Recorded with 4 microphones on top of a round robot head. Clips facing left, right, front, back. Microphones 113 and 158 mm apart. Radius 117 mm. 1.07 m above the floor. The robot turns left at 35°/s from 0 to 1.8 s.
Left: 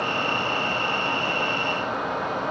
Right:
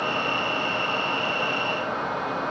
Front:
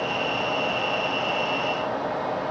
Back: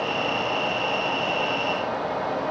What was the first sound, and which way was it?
Only background noise.